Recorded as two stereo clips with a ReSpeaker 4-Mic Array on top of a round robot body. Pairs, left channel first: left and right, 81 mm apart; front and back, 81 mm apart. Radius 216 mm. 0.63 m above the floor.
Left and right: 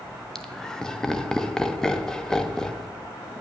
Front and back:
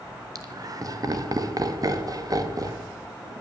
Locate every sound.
0.3 s laughter: 170° left, 1.3 m